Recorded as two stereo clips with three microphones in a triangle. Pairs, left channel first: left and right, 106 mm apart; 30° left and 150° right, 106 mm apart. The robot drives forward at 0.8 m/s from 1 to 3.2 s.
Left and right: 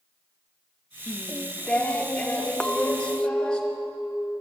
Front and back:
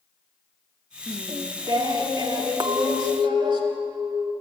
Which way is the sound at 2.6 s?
170° left.